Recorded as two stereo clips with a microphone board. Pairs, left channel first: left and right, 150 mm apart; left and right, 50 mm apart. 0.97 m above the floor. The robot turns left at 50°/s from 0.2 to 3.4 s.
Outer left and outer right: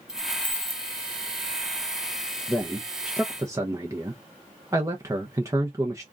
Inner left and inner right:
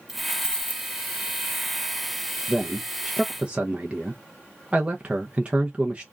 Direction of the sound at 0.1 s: 175° right.